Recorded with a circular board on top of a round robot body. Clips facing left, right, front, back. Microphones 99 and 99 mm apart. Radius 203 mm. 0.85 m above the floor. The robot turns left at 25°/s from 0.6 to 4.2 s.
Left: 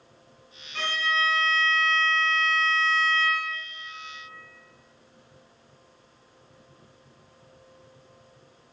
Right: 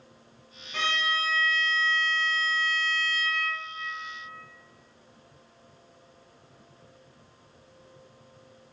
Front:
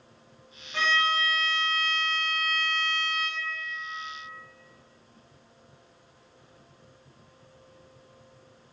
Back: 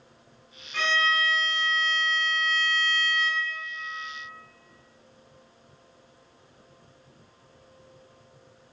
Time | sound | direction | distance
0.7 | a violin | 75° right | 0.6 m